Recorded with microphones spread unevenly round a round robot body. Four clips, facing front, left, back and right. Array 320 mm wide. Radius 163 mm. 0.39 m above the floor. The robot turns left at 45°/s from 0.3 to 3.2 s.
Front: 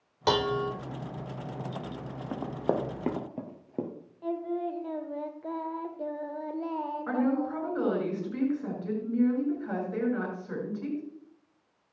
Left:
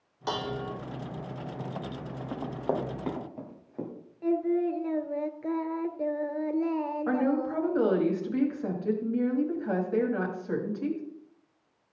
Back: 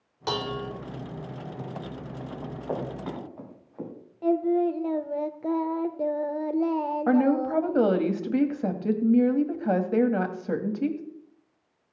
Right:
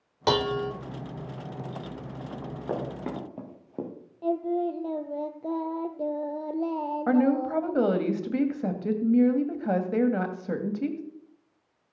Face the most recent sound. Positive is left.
turn(degrees=-150)